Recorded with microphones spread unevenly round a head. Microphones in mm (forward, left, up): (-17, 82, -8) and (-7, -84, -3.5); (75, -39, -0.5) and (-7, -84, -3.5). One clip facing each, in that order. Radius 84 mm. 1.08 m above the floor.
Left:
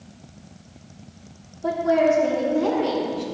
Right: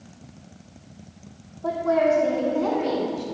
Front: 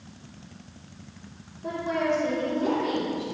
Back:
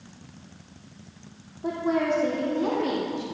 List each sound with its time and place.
1.6 s a woman speaking: 170° left, 3.5 m; by 3.2 s 175° right, 1.9 m